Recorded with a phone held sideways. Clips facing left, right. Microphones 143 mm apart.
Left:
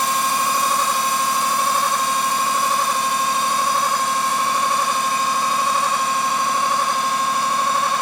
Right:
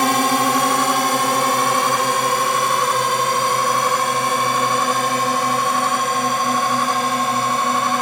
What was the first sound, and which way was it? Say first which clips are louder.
A drone: right 4 dB; 65° right (ahead or behind).